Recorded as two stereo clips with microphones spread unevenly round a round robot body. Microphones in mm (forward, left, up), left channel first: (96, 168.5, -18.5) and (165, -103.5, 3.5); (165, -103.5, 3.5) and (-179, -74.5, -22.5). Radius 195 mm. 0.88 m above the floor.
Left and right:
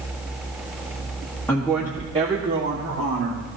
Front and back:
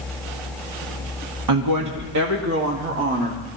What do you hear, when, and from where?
1.5 s a woman speaking: 175° right, 1.4 m; by 3.5 s 130° right, 2 m